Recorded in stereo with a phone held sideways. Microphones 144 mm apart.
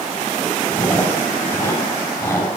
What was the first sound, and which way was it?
Chewing, 20° left (ahead or behind).